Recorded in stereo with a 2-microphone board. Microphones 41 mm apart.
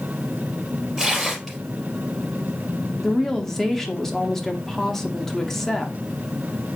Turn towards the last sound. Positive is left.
turn(degrees=10)  # may be behind; listen again after turning